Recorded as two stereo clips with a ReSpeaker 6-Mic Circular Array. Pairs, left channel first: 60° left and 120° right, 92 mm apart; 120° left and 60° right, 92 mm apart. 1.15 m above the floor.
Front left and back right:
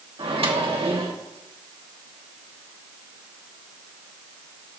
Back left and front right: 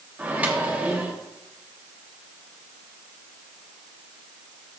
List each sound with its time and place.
0.2 s a microwave: 135° right, 2 m